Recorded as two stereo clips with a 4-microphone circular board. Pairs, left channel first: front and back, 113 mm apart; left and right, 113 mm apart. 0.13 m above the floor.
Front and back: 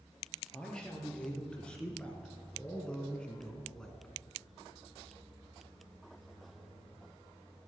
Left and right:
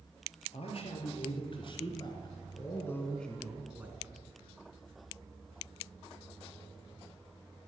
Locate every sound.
0.5 s a man speaking: 80° left, 3.5 m; by 4.2 s 80° right, 1.8 m